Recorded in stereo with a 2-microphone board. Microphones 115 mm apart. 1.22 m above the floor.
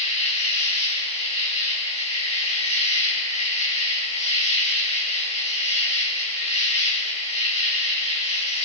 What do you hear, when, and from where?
0.0 s an insect: 70° left (ahead or behind), 2.0 m